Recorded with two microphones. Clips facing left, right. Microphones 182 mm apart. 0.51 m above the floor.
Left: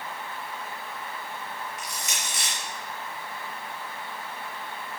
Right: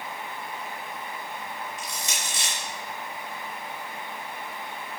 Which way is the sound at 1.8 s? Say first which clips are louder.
Right 1 dB; 30° right (ahead or behind).